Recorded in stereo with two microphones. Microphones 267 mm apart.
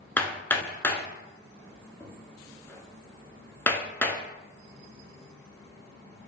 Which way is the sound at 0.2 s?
5° left (ahead or behind).